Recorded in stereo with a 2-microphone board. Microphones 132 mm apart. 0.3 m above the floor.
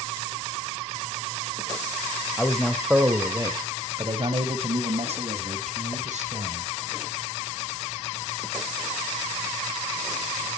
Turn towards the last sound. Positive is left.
turn(degrees=-65)  # may be behind; listen again after turning